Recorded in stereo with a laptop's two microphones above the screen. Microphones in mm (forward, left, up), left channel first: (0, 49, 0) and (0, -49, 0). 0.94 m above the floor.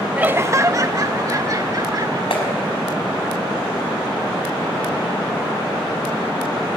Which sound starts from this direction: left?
A clap, at 2.3 s.